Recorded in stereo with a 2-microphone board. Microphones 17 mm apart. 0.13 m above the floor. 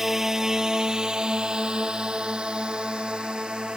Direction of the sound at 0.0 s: 25° right (ahead or behind).